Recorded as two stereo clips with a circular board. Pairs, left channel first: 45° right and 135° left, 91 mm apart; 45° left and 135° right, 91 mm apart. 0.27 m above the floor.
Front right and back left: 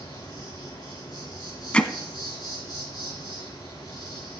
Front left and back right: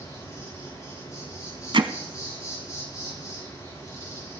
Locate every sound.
0.0 s an insect: 5° right, 6 m
1.7 s hammering: 125° right, 0.8 m